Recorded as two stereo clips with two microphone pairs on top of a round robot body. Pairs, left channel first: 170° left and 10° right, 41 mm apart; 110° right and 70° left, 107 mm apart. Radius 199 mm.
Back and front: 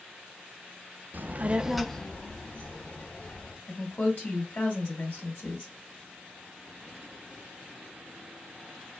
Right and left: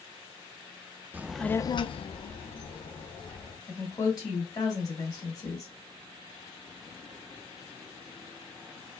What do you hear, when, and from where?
1.1 s a child speaking: 5° left, 0.6 m; by 3.6 s 135° right, 1.9 m
3.7 s a woman speaking: 165° right, 2.5 m